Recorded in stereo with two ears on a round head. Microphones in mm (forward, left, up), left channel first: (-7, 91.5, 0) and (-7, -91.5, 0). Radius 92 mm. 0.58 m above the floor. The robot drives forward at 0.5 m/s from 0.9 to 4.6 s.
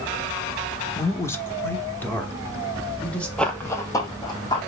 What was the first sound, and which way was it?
A man speaking, 15° left (ahead or behind).